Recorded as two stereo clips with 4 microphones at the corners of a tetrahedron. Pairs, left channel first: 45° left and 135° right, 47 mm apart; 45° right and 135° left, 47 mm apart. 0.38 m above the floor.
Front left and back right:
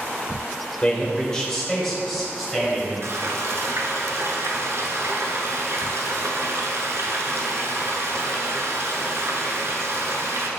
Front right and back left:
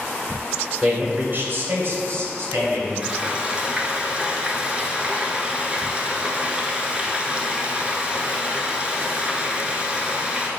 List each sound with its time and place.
0.8 s a man speaking: 100° left, 1.1 m; by 2.9 s 135° left, 2.5 m
3.0 s frying: 160° right, 0.9 m